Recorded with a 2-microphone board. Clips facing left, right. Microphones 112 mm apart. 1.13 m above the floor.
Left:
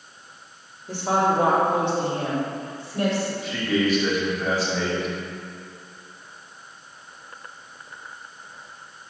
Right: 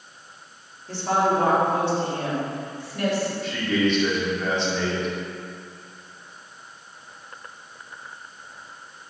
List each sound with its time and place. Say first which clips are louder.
0.9 s a woman speaking: even; 15° left (ahead or behind), 3 m; by 3.3 s 25° left (ahead or behind), 4.5 m
3.4 s a man speaking: left 1 dB; 5° left (ahead or behind), 2.5 m